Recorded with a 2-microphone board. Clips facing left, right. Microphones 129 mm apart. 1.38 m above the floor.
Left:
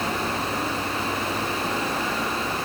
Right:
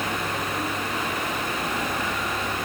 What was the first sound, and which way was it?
Only background noise.